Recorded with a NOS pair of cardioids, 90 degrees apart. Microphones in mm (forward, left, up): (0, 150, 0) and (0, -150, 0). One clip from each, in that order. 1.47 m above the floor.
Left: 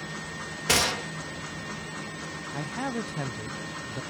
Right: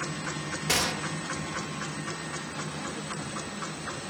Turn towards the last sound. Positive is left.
turn(degrees=50)